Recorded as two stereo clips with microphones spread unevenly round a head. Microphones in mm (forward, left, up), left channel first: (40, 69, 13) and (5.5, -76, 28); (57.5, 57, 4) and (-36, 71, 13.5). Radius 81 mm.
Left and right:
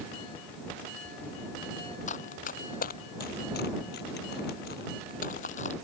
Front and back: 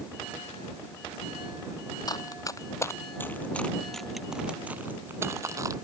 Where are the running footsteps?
40° left; by 5.7 s 125° left.